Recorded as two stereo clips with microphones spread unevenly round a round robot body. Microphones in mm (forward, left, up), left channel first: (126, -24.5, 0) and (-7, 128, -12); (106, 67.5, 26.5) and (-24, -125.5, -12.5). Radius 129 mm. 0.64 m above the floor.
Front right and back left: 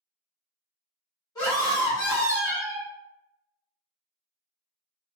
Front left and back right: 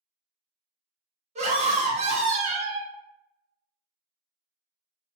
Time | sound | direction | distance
1.4 | a scream | 120° right | 0.9 m